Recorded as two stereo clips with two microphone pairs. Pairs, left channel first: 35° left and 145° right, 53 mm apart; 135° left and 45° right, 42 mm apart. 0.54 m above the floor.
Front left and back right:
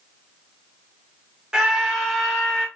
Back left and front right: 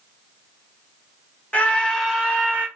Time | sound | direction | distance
1.5 | a scream | 140° left | 0.8 m